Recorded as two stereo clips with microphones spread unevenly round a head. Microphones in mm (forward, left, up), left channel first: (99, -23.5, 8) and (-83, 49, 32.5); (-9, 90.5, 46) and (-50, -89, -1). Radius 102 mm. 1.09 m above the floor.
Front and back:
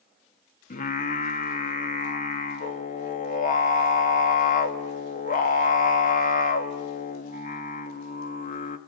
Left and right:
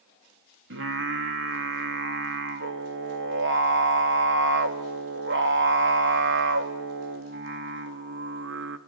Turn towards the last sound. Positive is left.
turn(degrees=-75)